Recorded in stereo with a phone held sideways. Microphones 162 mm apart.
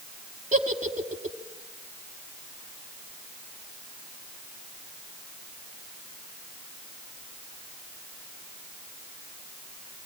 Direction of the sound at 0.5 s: 45° right (ahead or behind).